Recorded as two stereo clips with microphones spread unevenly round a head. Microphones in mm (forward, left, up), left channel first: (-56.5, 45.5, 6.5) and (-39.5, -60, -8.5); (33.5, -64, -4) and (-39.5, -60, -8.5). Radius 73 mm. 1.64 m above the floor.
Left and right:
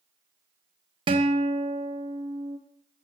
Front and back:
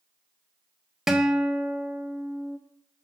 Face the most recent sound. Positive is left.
turn(degrees=-95)